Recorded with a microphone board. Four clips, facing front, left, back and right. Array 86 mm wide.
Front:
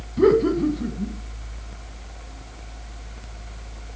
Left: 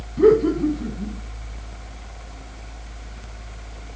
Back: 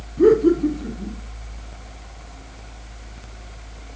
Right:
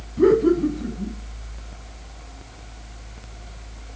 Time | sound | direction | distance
0.2 | laughter | 10° left | 1.5 m